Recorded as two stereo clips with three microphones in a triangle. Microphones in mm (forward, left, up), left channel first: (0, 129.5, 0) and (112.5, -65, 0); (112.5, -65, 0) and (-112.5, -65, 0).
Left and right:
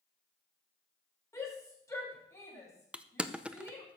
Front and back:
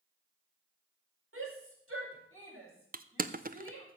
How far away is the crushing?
About 0.6 m.